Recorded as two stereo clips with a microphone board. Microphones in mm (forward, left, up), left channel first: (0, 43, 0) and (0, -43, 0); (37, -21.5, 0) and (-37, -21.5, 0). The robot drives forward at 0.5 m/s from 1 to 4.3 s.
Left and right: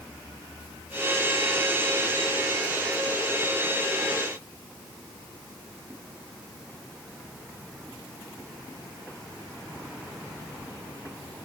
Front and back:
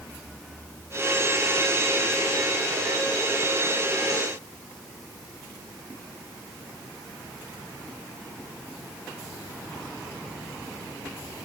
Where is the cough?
No cough in this recording.